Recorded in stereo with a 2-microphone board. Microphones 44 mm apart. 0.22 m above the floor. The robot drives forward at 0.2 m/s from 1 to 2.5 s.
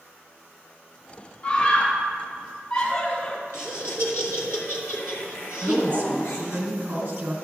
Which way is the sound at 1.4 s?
40° left (ahead or behind).